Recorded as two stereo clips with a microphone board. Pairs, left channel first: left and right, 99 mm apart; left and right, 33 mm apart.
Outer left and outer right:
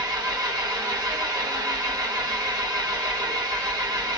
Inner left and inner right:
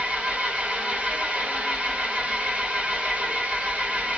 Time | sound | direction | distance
0.0 | an engine running | 40° right (ahead or behind) | 1.3 m